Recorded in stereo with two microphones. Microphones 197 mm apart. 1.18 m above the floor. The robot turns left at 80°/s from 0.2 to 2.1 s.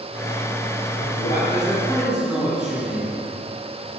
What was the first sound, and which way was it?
A man speaking, 85° left.